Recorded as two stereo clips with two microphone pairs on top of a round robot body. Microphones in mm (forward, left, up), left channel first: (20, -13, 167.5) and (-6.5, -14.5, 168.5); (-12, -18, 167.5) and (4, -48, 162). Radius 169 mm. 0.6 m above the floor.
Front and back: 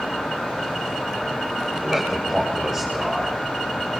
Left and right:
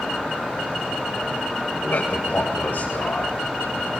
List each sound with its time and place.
1.7 s a man speaking: 90° left, 3 m; by 4.0 s 95° left, 5.5 m